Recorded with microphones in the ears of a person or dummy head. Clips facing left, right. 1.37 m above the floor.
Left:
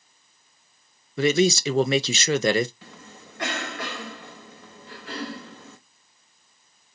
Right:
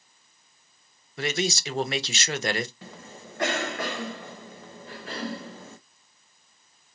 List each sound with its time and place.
1.2 s a man speaking: 65° left (ahead or behind), 0.6 m
2.8 s a cough: 45° right (ahead or behind), 1.4 m